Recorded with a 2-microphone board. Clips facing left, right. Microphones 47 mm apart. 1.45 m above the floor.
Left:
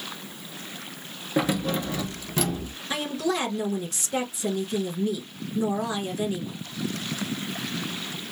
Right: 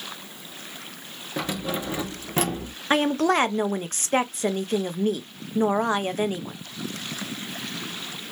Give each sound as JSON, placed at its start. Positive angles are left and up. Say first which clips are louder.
{"t": 1.4, "sound": "keys jangling", "louder": "left 4 dB", "side_deg": 15, "distance_m": 0.6}
{"t": 2.9, "sound": "a woman speaking", "louder": "right 7 dB", "side_deg": -50, "distance_m": 0.5}